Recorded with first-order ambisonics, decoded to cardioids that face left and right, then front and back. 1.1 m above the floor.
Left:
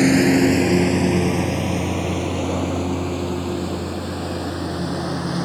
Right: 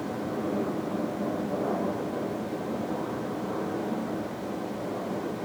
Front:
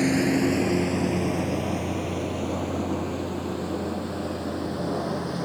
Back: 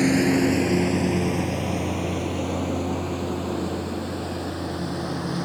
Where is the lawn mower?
100° left; by 5.5 s 105° left.